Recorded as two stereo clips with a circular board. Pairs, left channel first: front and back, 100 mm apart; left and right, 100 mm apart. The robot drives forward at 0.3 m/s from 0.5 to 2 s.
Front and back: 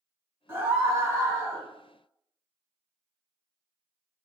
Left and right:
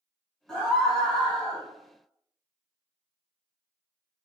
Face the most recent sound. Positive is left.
turn(degrees=170)